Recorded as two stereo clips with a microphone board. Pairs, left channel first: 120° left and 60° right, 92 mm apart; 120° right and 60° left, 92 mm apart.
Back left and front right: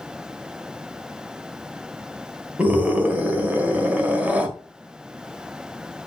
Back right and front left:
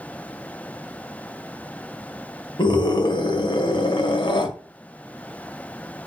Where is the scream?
130° right, 1.9 m.